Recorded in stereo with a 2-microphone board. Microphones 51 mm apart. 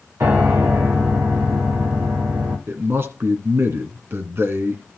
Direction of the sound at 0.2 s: 60° right (ahead or behind).